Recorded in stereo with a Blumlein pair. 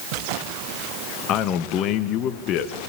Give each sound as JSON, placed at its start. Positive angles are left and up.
{"t": 1.3, "sound": "a man speaking", "azimuth_deg": 35, "distance_m": 1.4}